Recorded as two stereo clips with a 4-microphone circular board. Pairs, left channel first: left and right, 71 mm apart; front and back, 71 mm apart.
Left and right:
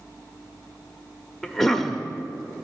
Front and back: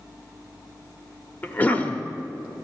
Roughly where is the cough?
Ahead.